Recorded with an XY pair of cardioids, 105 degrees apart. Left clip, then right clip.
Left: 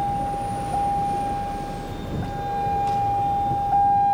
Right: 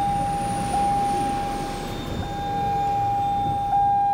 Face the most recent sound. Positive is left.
turn(degrees=10)